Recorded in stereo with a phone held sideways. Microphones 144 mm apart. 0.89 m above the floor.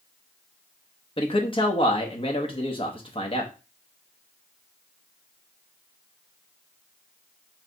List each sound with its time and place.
1.2 s a man speaking: 40° left (ahead or behind), 1.2 m